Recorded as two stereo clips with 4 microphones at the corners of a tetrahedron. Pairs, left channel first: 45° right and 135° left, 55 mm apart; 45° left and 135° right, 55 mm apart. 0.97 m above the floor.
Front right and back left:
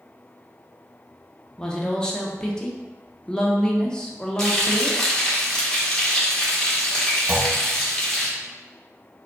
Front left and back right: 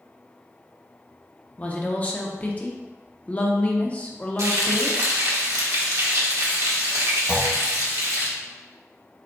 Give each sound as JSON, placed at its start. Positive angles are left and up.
{"t": 1.6, "sound": "a woman speaking", "azimuth_deg": 10, "distance_m": 0.7}
{"t": 4.4, "sound": "frying", "azimuth_deg": -125, "distance_m": 1.1}
{"t": 7.3, "sound": "a clunk", "azimuth_deg": 170, "distance_m": 0.8}